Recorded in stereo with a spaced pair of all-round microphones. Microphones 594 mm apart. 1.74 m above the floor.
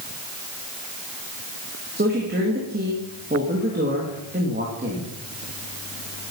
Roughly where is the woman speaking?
Centre.